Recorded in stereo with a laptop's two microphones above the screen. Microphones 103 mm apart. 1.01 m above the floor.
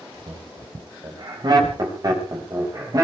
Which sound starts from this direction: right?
Laughter, at 0.3 s.